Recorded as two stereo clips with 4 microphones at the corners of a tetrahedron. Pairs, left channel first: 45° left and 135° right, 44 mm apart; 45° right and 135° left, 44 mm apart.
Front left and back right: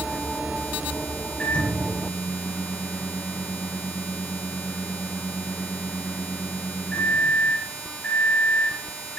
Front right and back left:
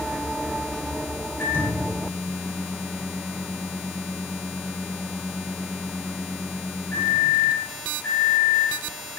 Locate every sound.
1.4 s a microwave: 15° right, 8.5 m